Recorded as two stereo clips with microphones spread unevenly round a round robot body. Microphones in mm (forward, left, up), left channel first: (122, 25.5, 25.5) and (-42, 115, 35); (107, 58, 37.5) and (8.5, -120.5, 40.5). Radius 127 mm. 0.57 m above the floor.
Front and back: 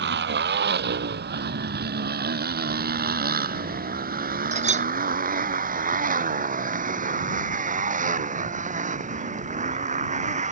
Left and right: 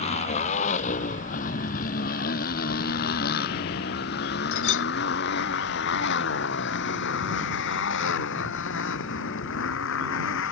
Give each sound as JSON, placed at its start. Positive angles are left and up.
{"t": 0.0, "sound": "a motorcycle", "azimuth_deg": 125}
{"t": 4.5, "sound": "a clink", "azimuth_deg": 100}